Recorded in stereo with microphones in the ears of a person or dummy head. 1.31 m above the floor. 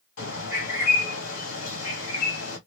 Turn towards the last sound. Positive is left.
turn(degrees=65)  # may be behind; listen again after turning